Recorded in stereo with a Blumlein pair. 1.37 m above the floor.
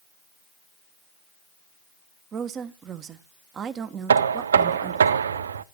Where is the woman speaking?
25° right, 1.4 m.